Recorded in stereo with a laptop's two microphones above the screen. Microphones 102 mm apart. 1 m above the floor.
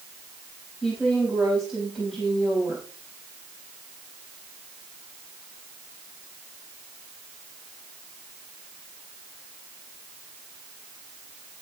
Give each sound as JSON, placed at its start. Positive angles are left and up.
{"t": 0.8, "sound": "a woman speaking", "side_deg": 0, "distance_m": 5.0}